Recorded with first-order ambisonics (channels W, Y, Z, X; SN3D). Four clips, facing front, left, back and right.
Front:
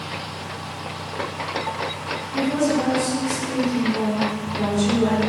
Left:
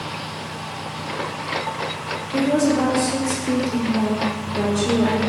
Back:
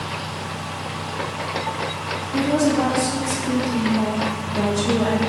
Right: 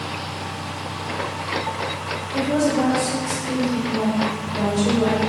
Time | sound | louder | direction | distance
2.3 | a woman speaking | left 2 dB, back 2 dB | 135° left | 1.8 m